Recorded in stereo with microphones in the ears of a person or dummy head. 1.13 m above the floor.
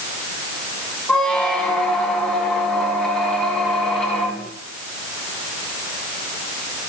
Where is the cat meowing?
I don't hear a cat meowing.